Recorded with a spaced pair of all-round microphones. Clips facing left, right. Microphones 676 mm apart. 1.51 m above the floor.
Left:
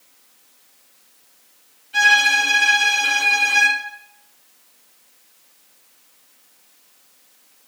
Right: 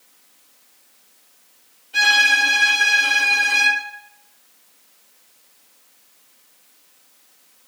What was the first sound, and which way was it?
A violin, 20° left (ahead or behind).